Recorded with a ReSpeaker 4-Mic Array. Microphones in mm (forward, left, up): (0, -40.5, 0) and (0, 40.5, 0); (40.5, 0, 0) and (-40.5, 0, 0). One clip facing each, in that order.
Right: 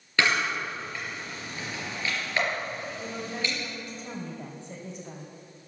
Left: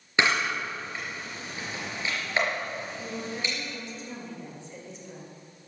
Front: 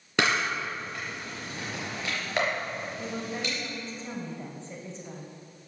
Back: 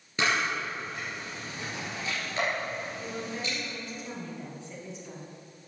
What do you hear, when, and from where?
0.2 s a camera shutter: 20° left, 4 m
3.0 s a woman speaking: 55° right, 2.5 m